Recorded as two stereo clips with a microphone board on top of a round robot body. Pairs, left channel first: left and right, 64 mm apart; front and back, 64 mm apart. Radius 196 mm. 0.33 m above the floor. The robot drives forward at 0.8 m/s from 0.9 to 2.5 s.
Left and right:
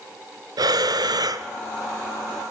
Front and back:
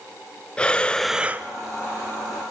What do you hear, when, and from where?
0.6 s breathing: 75° right, 0.5 m; by 1.5 s 125° right, 0.6 m